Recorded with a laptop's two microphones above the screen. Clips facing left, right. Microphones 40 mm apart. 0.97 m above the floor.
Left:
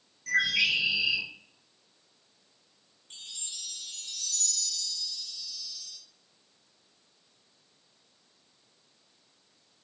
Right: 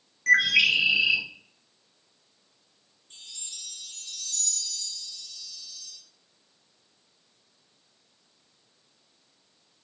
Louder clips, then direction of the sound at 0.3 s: Right 6 dB; 55° right (ahead or behind).